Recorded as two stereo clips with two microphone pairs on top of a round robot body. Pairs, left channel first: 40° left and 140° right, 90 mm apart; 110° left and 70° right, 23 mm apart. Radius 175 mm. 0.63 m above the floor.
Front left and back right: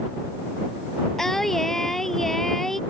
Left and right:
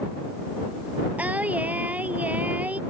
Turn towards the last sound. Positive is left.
turn(degrees=-45)